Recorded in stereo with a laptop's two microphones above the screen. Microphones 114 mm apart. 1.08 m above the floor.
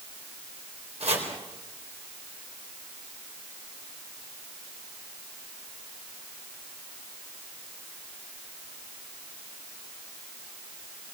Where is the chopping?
85° right, 4.5 m.